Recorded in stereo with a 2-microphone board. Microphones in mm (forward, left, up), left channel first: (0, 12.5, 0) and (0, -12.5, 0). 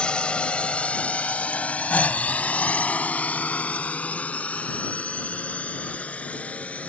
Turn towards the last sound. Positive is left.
turn(degrees=65)  # may be behind; listen again after turning